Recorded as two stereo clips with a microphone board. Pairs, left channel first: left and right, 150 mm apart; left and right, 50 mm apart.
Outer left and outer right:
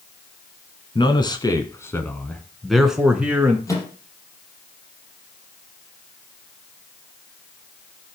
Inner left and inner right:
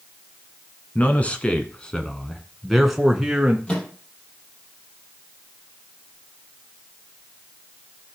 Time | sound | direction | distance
0.9 | a man speaking | 30° left (ahead or behind) | 1.8 m
3.7 | a microwave | 20° left (ahead or behind) | 4 m